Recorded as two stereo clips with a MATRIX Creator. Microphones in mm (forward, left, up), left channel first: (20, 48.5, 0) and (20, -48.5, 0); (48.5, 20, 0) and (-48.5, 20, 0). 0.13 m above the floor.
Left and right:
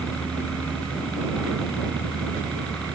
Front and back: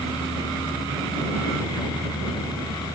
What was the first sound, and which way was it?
A helicopter, 10° left.